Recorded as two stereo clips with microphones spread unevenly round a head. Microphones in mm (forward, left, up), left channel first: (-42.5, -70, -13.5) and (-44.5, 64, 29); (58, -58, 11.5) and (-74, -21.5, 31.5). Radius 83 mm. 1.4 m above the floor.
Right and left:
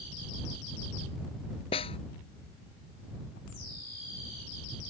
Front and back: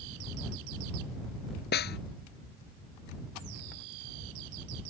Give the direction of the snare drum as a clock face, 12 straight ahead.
1 o'clock.